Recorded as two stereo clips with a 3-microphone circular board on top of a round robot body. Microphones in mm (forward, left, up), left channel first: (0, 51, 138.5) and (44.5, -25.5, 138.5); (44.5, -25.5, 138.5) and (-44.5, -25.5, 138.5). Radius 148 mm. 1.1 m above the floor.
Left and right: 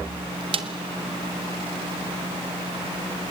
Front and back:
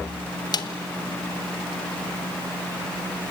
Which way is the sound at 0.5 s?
40° right.